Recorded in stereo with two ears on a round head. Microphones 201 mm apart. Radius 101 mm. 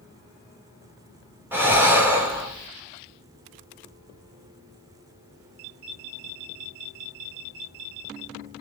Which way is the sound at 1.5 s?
10° right (ahead or behind).